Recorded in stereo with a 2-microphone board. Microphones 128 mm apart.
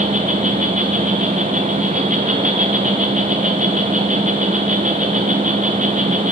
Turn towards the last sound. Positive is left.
turn(degrees=-85)